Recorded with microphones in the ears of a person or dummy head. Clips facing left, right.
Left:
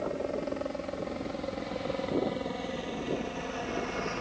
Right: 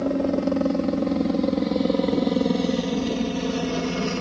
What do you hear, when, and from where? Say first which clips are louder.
0.0 s a helicopter: right 11 dB; 65° right (ahead or behind); by 4.2 s 50° right (ahead or behind)